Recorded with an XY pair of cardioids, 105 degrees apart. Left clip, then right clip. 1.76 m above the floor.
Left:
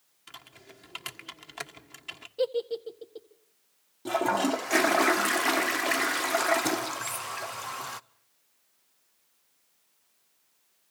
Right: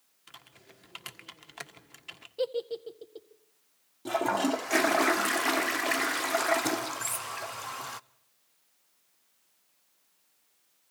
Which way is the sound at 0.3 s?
20° left.